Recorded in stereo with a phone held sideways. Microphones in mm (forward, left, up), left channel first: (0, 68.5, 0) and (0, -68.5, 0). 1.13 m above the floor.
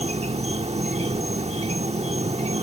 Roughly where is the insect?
Right.